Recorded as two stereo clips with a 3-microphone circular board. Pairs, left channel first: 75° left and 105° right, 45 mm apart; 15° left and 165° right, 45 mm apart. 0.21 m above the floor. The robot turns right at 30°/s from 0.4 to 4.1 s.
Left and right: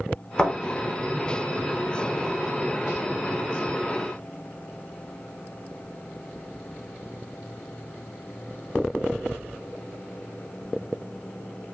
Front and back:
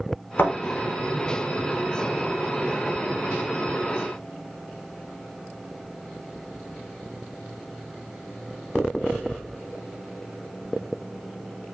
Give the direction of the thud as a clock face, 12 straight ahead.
12 o'clock.